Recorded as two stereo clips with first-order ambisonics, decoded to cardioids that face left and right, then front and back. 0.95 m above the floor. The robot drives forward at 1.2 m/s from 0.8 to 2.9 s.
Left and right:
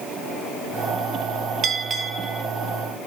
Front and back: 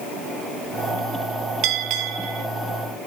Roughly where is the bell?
Behind right.